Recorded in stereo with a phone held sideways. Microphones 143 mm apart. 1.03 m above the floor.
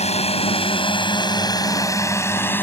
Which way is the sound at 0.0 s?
45° left (ahead or behind).